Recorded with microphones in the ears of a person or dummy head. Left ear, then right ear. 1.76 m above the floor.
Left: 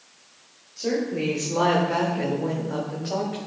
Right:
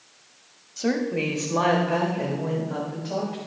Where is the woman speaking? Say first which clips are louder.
Even; 50° right (ahead or behind), 0.7 m; by 3.4 s 25° left (ahead or behind), 1.7 m.